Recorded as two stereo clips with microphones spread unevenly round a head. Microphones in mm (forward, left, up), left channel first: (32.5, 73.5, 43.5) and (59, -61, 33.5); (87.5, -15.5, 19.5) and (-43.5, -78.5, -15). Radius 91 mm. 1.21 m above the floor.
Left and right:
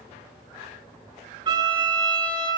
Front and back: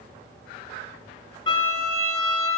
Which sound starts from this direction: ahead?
A violin, at 1.5 s.